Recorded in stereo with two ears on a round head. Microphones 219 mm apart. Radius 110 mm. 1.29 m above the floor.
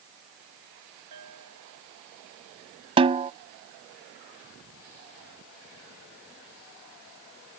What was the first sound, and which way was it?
A bell, 85° right.